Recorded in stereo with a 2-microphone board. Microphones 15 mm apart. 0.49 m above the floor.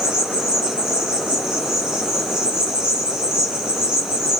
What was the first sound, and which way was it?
An insect, 75° right (ahead or behind).